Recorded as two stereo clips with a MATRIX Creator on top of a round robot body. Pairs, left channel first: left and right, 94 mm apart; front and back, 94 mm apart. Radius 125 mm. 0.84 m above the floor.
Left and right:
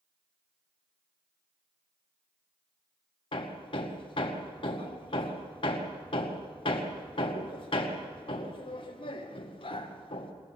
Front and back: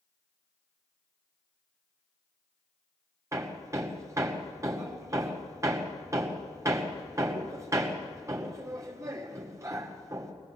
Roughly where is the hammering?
Behind left.